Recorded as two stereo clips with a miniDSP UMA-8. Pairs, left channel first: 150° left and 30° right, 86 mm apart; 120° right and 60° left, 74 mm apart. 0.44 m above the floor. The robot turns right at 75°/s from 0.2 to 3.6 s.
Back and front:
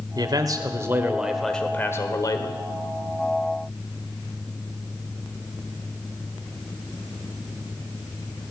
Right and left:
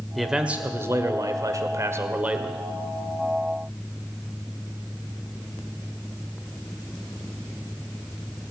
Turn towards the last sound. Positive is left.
turn(degrees=-135)